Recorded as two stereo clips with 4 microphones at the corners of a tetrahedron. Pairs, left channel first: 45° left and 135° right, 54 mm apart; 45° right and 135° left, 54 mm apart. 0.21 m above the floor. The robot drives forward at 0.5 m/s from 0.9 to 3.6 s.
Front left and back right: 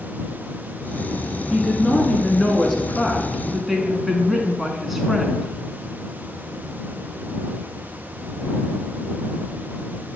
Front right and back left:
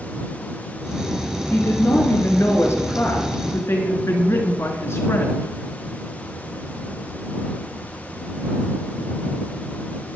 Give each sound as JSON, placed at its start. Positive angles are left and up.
{"t": 1.5, "sound": "a woman speaking", "azimuth_deg": -30, "distance_m": 3.0}